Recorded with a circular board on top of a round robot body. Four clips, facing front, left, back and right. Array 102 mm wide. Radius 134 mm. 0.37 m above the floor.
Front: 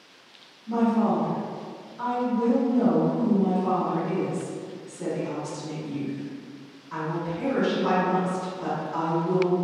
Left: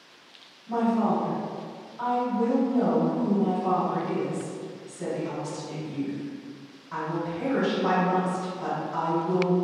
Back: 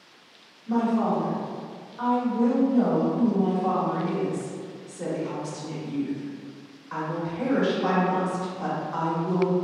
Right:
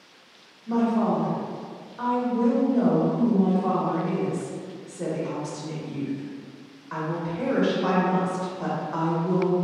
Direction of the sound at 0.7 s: 120° right.